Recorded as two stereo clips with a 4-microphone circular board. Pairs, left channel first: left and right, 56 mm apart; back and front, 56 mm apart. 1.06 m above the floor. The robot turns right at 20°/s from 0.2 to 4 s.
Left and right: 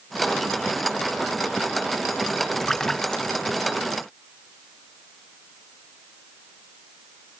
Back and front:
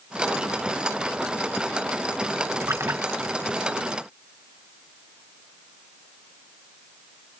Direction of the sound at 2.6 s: 5° left.